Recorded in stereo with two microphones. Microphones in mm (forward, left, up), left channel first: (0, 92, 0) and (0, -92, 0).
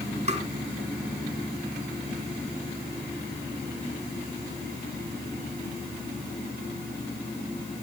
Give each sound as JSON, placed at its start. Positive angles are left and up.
{"t": 0.3, "sound": "tapping", "side_deg": -40, "distance_m": 2.0}